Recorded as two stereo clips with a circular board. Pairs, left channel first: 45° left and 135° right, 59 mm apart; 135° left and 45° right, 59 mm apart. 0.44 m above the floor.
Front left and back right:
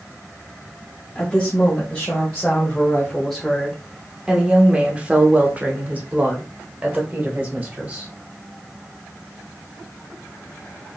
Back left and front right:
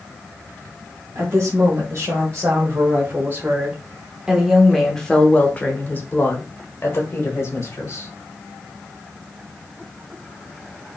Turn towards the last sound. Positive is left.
turn(degrees=170)